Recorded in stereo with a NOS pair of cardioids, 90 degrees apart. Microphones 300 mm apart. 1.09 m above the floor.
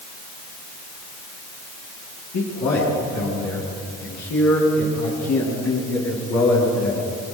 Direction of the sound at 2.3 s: 65° left.